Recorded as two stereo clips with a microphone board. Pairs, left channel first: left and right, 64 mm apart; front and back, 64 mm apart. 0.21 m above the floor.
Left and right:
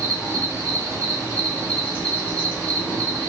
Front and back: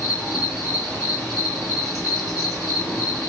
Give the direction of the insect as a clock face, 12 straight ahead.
9 o'clock.